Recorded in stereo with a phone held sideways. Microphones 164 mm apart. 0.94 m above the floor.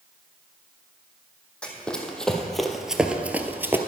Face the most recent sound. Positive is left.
turn(degrees=-15)  # may be behind; listen again after turning